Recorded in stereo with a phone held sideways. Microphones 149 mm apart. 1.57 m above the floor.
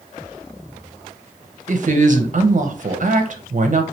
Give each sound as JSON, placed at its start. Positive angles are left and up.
{"t": 1.7, "sound": "a woman speaking", "side_deg": -55, "distance_m": 0.7}